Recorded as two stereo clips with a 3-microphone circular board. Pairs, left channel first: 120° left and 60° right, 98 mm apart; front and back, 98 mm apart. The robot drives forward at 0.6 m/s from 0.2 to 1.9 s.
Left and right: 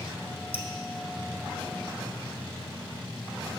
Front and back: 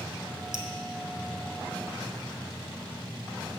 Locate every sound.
0.5 s dripping: 105° right, 0.8 m; by 0.7 s 115° right, 0.9 m